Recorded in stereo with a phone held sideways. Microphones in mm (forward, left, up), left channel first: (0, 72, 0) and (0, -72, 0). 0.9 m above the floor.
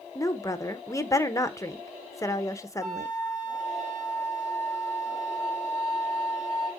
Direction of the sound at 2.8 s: 10° right (ahead or behind).